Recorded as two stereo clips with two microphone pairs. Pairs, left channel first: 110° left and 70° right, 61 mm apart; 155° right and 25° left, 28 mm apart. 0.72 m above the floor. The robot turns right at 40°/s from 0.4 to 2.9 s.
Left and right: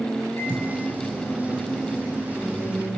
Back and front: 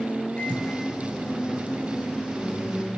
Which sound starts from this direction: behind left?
A microwave, at 0.4 s.